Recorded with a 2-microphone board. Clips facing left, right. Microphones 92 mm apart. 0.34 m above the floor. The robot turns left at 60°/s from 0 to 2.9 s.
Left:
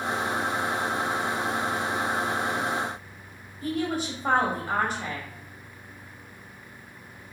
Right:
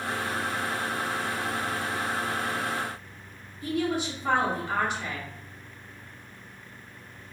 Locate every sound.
3.6 s a woman speaking: 45° left (ahead or behind), 1.8 m